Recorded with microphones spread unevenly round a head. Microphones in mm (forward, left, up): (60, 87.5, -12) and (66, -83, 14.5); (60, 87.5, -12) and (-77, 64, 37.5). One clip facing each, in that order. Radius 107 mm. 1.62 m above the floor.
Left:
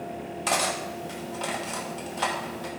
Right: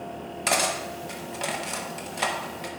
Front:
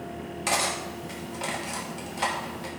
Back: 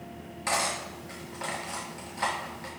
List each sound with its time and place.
0.5 s cutlery clinking: 80° right, 1.0 m